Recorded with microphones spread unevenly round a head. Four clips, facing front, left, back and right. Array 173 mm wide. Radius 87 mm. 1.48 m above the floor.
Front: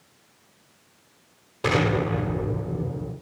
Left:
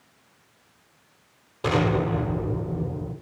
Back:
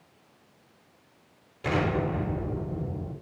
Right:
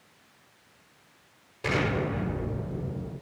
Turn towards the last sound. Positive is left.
turn(degrees=25)